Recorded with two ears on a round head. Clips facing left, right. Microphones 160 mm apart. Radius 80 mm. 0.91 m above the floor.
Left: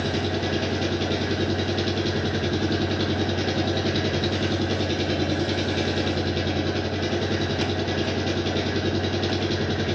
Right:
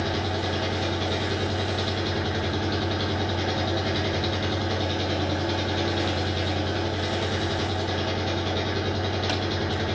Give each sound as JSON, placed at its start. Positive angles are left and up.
{"t": 0.0, "sound": "an engine running", "side_deg": 30, "distance_m": 1.4}